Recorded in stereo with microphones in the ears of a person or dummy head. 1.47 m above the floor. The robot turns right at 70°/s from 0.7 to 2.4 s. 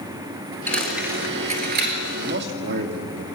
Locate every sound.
0.7 s a dropped coin: 15° left (ahead or behind), 3 m; by 2.0 s 60° right (ahead or behind), 3 m
2.1 s a man speaking: 30° right (ahead or behind), 2.5 m; by 3.2 s 55° right (ahead or behind), 2.5 m